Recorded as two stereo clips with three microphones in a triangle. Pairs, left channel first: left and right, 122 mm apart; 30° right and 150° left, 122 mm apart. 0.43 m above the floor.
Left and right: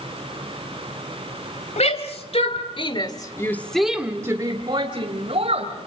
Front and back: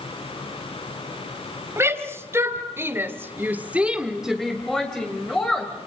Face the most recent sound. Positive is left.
turn(degrees=-110)